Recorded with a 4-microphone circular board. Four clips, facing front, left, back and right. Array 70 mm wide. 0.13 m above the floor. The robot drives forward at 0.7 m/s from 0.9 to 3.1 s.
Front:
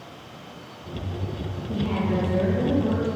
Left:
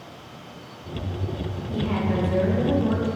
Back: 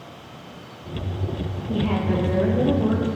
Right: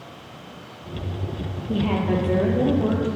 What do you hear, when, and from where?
1.7 s a woman speaking: 115° right, 3.5 m; by 3.1 s 125° right, 4 m